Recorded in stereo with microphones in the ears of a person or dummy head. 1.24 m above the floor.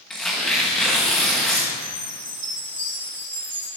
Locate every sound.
0.1 s tearing paper: centre (ahead or behind), 1.1 m
1.7 s a chime: 15° right (ahead or behind), 3.5 m